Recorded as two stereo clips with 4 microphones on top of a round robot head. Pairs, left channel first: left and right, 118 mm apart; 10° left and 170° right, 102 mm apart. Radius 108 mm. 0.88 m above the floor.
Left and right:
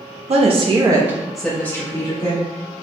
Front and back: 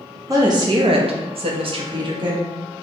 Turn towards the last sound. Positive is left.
turn(degrees=145)